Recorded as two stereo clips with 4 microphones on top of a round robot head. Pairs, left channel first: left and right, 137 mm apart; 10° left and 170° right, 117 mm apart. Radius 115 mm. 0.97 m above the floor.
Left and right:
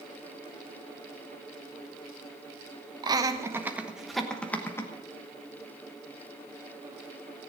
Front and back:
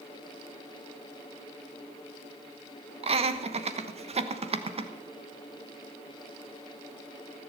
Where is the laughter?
145° right, 1.2 m; by 4.9 s 160° left, 1.2 m.